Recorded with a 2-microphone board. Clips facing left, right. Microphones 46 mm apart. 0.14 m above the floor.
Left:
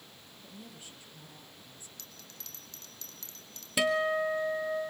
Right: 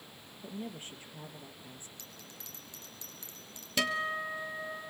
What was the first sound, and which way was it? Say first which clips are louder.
A woman speaking: right 8 dB; 40° right (ahead or behind).